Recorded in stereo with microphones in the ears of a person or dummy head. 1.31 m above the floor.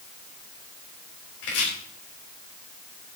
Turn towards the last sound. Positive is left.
turn(degrees=75)  # may be behind; listen again after turning